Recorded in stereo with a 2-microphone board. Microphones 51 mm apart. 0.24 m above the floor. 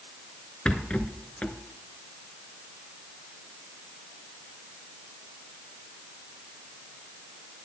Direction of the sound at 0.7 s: 25° left (ahead or behind).